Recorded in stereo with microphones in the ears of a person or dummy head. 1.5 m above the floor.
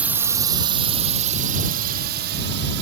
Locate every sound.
0.0 s a drone: 5° right (ahead or behind); by 2.8 s 55° right (ahead or behind)